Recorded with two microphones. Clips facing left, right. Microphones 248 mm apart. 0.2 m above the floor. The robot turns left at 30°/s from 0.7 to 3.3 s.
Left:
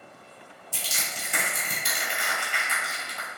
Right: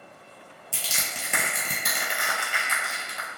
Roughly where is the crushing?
Right.